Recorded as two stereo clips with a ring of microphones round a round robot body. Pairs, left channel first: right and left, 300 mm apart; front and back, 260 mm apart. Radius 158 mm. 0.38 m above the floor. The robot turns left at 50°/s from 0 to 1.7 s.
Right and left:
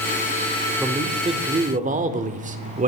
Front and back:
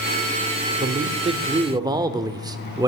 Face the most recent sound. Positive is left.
turn(degrees=120)